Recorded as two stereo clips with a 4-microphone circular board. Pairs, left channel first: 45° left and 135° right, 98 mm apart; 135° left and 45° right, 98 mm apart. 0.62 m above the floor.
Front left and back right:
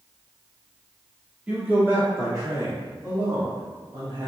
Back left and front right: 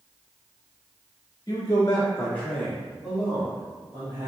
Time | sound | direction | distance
1.5 | a man speaking | 150° left | 1.7 m